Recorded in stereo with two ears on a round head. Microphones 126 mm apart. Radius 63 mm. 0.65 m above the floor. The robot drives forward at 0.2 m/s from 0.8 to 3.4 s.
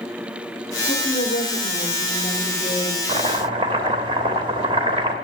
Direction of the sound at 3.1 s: 35° right (ahead or behind).